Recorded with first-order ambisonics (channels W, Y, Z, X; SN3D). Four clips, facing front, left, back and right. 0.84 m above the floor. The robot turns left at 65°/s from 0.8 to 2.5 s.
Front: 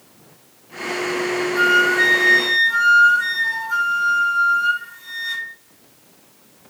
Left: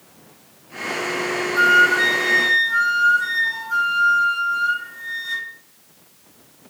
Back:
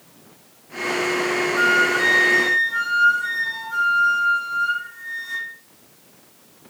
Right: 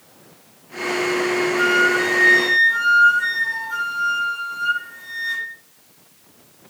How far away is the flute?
About 1.2 m.